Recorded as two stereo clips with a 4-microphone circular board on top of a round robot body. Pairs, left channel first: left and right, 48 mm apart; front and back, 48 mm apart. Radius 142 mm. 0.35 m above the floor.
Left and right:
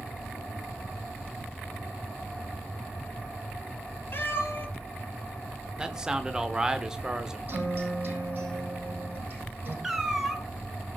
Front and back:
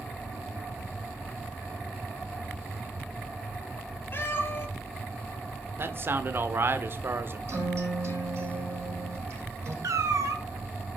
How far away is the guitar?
About 6.5 m.